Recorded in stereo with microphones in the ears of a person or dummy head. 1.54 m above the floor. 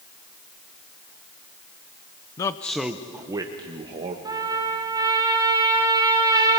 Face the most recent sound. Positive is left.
turn(degrees=-15)  # may be behind; listen again after turning